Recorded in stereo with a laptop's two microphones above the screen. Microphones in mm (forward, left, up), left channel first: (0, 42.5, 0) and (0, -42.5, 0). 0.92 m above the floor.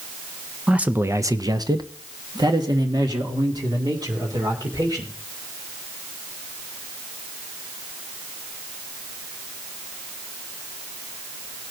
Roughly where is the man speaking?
Centre.